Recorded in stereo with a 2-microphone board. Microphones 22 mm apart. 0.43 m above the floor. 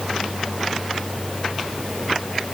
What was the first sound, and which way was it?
Only background noise.